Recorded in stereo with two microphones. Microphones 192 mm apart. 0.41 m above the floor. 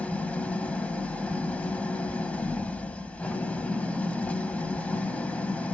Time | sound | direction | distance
0.0 | an engine running | 5° left (ahead or behind) | 0.9 m